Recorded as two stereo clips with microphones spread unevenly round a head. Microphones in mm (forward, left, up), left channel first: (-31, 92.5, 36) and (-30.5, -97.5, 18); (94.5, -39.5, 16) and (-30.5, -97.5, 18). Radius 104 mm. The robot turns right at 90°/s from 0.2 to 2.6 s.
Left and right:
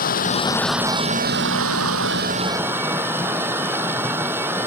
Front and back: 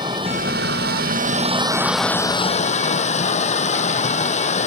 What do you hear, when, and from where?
0.0 s running water: 135° left; by 4.7 s 10° right